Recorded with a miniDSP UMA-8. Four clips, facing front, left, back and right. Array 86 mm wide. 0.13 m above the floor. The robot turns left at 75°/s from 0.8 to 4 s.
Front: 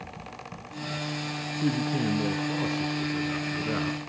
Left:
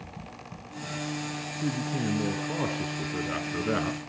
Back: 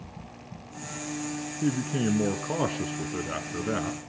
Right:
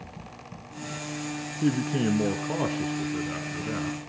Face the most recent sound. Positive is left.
turn(degrees=90)